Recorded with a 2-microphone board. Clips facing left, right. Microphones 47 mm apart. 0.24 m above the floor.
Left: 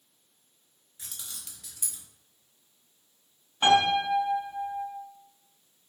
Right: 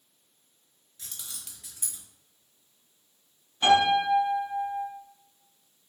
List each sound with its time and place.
1.0 s keys jangling: 15° left (ahead or behind), 0.7 m; by 2.0 s 40° right (ahead or behind), 1.0 m
3.6 s a piano: 25° left (ahead or behind), 1.4 m